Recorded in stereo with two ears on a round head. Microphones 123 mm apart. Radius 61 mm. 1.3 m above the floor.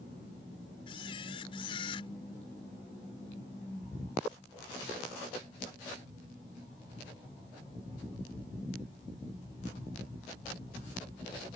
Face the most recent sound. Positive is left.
turn(degrees=40)  # may be behind; listen again after turning